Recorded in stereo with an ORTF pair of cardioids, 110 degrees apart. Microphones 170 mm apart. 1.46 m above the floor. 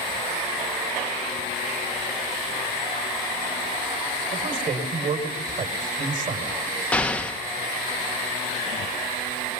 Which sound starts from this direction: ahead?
An explosion, at 6.9 s.